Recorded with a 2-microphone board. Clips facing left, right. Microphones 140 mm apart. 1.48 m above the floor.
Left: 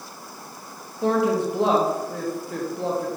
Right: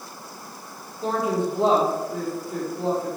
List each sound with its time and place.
1.0 s a woman speaking: 70° left (ahead or behind), 1.0 m